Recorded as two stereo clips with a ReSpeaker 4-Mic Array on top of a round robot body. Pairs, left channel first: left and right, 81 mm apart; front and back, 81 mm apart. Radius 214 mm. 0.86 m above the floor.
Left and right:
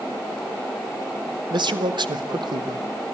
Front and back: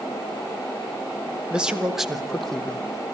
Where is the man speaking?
100° right, 2.5 m; by 2.8 s 80° right, 2.0 m.